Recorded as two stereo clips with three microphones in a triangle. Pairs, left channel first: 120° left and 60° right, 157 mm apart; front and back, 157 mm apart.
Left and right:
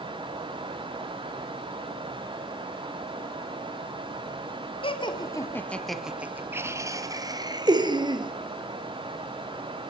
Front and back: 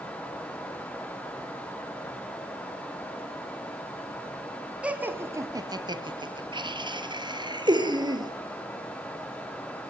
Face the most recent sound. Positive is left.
turn(degrees=-120)